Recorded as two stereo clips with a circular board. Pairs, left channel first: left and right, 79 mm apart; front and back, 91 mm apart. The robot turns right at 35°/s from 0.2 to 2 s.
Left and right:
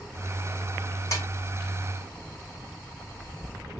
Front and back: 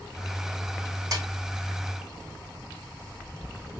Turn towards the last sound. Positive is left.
turn(degrees=170)